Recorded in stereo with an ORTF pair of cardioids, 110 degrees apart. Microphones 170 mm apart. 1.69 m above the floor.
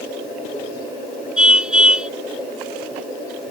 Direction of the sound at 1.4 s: 5° right.